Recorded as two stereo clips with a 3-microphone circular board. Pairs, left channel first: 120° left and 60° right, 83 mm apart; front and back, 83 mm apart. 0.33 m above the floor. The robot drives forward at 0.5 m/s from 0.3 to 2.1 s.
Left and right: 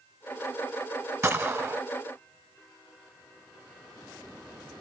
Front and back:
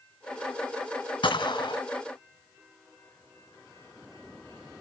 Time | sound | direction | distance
1.2 | a gunshot | 5° right | 1.0 m